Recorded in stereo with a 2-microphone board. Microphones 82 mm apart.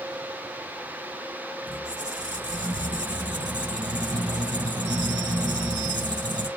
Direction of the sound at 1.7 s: 60° right (ahead or behind).